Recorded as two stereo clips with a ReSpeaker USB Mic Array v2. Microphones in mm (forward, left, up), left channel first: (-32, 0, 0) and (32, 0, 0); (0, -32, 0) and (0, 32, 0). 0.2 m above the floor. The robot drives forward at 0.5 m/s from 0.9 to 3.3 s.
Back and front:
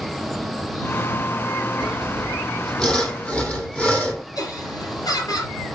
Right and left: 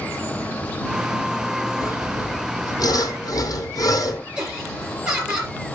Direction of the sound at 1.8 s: 80° right.